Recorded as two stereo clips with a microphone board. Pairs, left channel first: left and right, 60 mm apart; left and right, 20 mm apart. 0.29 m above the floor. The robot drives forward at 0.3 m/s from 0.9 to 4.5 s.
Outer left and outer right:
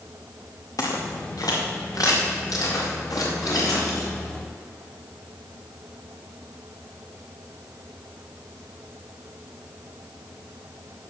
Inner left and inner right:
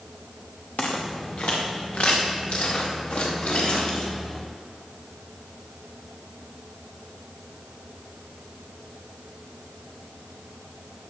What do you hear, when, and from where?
0.8 s footsteps: 75° left (ahead or behind), 2 m; by 4.1 s 85° left, 4 m